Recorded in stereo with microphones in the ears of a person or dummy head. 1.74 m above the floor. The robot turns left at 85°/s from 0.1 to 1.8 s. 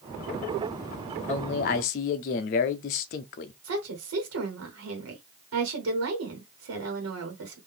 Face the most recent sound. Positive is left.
turn(degrees=-85)